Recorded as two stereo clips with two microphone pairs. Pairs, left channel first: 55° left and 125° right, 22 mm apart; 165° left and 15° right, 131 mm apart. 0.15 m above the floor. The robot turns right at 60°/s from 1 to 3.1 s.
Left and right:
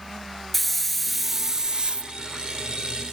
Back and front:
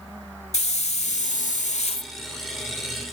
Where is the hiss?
145° left, 0.5 m; by 2.1 s 150° right, 0.5 m.